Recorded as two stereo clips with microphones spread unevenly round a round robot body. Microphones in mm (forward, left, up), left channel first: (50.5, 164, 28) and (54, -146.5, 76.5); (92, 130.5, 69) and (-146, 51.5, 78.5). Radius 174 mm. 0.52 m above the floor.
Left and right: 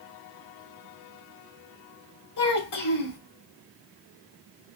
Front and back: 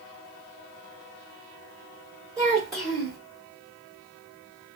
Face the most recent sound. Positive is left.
turn(degrees=120)